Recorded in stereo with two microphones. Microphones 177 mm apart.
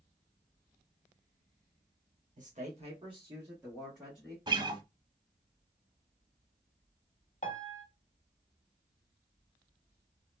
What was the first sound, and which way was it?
A man speaking, 45° right (ahead or behind).